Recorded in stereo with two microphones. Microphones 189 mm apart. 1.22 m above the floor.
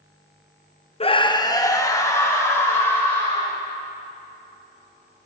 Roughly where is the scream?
Left.